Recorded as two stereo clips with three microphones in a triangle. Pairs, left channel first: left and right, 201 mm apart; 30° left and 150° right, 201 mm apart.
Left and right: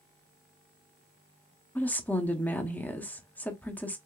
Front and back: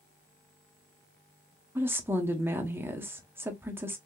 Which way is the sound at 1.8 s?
155° left.